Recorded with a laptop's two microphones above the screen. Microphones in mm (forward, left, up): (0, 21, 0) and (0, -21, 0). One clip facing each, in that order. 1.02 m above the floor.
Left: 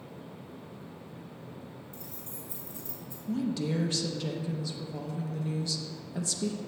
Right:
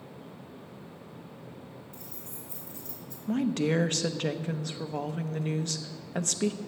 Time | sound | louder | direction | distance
1.9 | keys jangling | even | 30° left (ahead or behind) | 2.5 m
3.3 | a woman speaking | right 4 dB | 55° right (ahead or behind) | 0.5 m